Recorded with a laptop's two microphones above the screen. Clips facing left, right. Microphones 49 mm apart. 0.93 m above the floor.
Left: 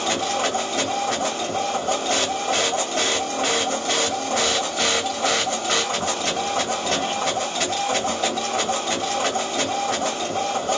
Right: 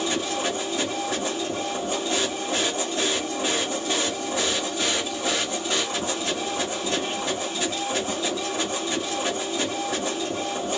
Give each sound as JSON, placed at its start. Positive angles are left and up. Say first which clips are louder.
{"t": 0.0, "sound": "a machine running", "louder": "left 3 dB", "side_deg": 70, "distance_m": 1.3}